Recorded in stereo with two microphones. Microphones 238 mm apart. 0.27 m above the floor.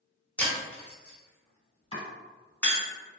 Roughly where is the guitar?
No guitar in this recording.